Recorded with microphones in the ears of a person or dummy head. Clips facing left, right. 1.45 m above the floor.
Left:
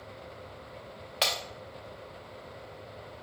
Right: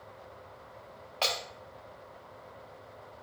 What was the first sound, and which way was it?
Breaking glass, 20° left (ahead or behind).